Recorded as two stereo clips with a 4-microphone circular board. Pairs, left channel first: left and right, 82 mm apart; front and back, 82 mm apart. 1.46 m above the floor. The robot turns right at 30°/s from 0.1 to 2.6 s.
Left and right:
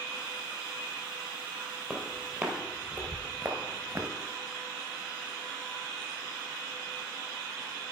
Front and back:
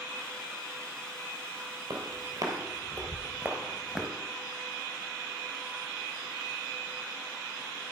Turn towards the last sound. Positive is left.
turn(degrees=-90)